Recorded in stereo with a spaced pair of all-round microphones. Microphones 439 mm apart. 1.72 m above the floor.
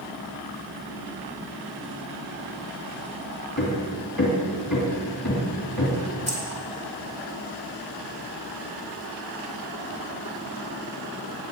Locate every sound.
3.6 s hammering: 40° left (ahead or behind), 2.5 m
6.3 s keys jangling: 15° right (ahead or behind), 2.5 m